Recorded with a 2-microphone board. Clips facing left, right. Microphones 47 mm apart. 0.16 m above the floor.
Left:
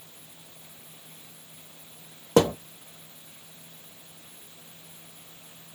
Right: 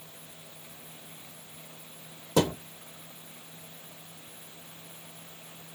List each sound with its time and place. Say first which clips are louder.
2.4 s a thud: left 5 dB; 70° left (ahead or behind), 1.1 m